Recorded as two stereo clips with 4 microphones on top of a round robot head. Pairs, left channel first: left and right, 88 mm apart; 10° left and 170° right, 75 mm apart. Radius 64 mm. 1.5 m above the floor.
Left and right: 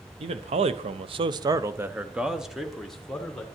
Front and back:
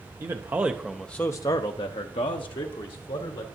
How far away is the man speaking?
About 0.9 m.